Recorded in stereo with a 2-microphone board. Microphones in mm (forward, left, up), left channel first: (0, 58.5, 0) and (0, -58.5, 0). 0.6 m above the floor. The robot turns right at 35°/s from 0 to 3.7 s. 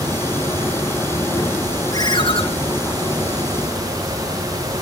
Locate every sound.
1.9 s a ringtone: 30° left (ahead or behind), 2.5 m; by 2.4 s 50° left (ahead or behind), 2.5 m